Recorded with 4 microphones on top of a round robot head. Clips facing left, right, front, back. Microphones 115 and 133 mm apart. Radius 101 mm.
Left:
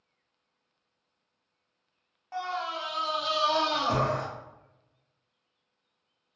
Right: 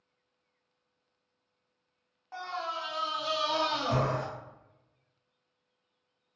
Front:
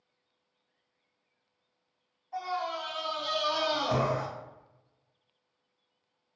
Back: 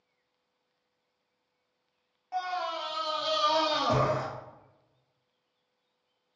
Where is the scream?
175° left, 1.4 m; by 4.3 s 145° left, 2 m.